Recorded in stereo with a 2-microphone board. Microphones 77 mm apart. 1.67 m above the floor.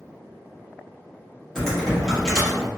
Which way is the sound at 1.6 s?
5° left (ahead or behind).